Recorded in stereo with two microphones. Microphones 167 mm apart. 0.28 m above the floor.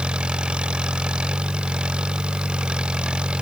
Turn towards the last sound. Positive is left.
turn(degrees=-5)  # may be behind; listen again after turning